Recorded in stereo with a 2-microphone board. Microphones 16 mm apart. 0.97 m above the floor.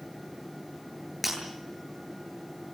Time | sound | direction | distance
1.2 | breaking glass | 5° right (ahead or behind) | 10 m